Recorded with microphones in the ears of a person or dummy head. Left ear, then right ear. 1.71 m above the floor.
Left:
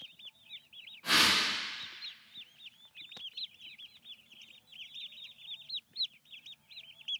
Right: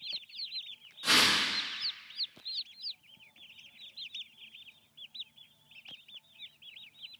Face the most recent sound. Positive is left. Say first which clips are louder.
# right 1 dB
turn(degrees=-75)  # may be behind; listen again after turning